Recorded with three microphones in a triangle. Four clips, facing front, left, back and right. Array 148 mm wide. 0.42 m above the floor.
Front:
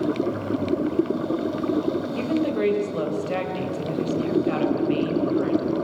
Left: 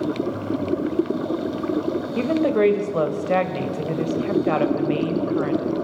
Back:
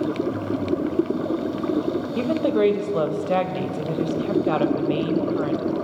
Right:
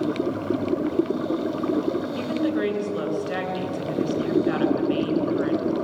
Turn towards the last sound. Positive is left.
turn(degrees=130)